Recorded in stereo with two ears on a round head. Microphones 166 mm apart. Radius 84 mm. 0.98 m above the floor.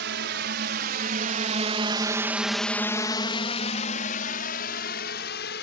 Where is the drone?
65° right (ahead or behind); by 5.6 s 60° left (ahead or behind).